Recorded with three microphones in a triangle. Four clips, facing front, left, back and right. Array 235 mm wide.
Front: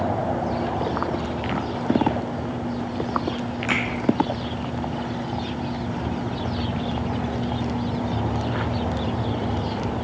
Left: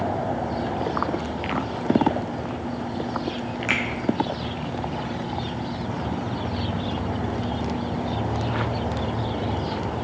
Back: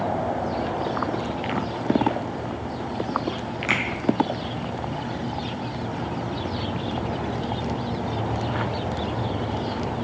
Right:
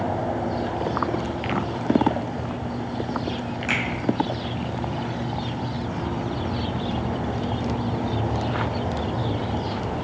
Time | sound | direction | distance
3.7 | a finger snap | 130° left | 0.8 m